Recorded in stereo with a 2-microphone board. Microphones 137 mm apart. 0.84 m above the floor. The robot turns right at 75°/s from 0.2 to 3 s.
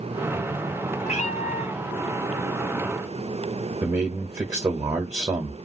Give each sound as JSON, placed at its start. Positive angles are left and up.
{"t": 1.0, "sound": "a cat meowing", "azimuth_deg": 65, "distance_m": 0.7}
{"t": 3.8, "sound": "a man speaking", "side_deg": -25, "distance_m": 0.7}